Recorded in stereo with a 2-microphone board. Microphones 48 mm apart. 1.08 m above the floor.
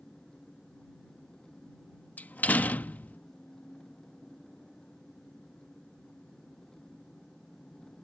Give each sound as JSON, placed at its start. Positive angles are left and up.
{"t": 0.0, "sound": "an engine running", "side_deg": 10}
{"t": 2.2, "sound": "a door slam", "side_deg": 35}